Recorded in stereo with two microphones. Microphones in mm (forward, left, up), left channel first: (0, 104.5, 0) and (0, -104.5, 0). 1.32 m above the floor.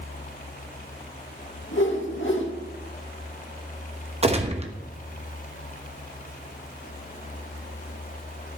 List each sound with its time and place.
1.7 s a whoosh: 70° left (ahead or behind), 2.0 m
4.2 s a gunshot: 30° right (ahead or behind), 1.1 m